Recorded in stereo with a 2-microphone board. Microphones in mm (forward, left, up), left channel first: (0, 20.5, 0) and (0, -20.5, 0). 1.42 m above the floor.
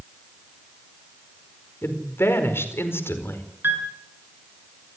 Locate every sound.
1.8 s a woman speaking: 75° left (ahead or behind), 4.5 m
3.6 s a piano: 60° right (ahead or behind), 7.5 m